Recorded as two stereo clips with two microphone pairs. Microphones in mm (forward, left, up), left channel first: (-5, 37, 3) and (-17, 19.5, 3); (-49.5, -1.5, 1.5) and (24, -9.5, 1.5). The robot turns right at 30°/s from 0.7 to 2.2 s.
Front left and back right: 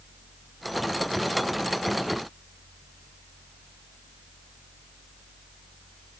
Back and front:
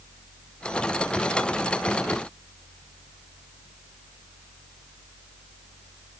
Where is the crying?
I don't hear crying.